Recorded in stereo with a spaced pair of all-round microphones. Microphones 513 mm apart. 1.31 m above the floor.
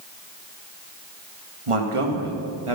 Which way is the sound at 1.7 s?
75° right (ahead or behind).